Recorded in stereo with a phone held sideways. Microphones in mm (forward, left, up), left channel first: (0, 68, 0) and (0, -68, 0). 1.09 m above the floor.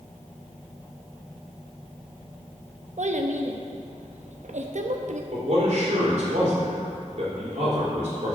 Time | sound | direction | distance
3.0 | a child speaking | 65° right (ahead or behind) | 0.6 m
5.3 | a man speaking | 60° right (ahead or behind) | 3 m